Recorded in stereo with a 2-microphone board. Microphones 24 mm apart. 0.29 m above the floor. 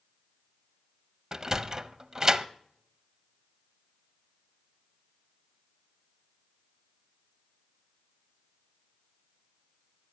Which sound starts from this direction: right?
A sliding door, at 1.3 s.